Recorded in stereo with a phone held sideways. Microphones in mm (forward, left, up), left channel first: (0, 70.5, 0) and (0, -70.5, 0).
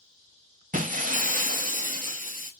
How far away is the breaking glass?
About 0.6 m.